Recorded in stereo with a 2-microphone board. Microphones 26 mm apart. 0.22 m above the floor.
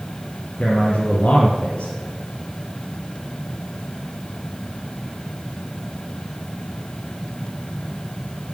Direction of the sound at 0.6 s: 50° left (ahead or behind).